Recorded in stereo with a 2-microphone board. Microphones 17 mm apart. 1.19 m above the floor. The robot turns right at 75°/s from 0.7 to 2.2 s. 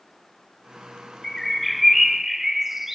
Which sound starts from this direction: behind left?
A bird, at 1.2 s.